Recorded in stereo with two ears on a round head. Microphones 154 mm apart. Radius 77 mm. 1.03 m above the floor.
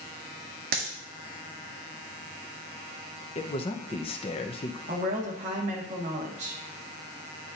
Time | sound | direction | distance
0.7 | a dropped coin | 55° right (ahead or behind) | 1.5 m
3.4 | a man speaking | 35° left (ahead or behind) | 0.7 m
4.9 | a woman speaking | 40° right (ahead or behind) | 1.5 m